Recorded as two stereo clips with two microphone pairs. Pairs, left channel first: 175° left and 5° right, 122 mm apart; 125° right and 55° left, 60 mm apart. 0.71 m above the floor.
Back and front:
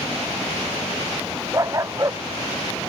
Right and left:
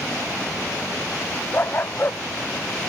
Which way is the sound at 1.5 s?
70° right.